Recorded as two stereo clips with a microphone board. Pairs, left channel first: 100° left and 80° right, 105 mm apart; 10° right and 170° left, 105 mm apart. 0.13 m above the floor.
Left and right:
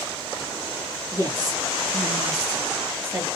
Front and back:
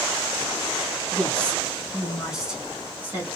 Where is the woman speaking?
80° right, 2.0 m; by 3.3 s 135° right, 1.8 m.